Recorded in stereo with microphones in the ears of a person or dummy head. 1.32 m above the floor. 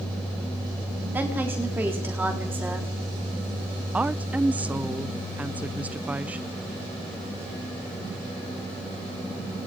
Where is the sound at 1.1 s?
10° right (ahead or behind), 4 m.